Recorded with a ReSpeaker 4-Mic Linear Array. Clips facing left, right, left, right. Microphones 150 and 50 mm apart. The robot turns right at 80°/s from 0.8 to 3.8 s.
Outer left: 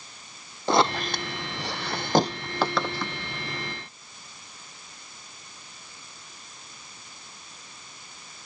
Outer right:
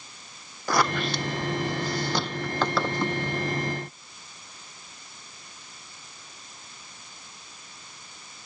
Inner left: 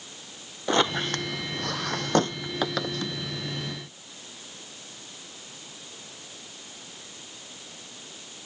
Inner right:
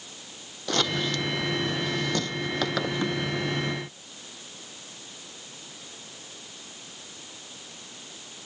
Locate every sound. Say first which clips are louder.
0.7 s a squeak: outer left 2 dB, inner left 3 dB; 25° left (ahead or behind); by 3.2 s 35° right (ahead or behind)